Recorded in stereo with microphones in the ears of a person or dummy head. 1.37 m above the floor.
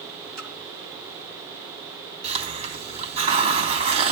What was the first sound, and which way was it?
A splash, 85° right.